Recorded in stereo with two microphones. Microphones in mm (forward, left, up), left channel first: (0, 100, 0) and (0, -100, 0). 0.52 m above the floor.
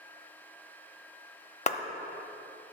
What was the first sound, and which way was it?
A clap, 35° left (ahead or behind).